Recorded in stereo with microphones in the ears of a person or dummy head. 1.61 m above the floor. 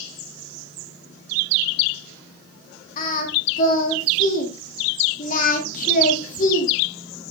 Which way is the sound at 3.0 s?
50° left (ahead or behind).